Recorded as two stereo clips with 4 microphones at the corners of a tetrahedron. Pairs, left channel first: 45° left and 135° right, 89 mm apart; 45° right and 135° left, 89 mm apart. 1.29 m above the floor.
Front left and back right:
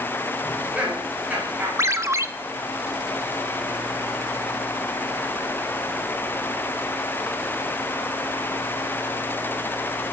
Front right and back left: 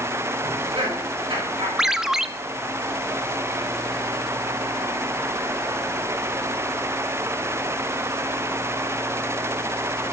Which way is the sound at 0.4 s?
150° left.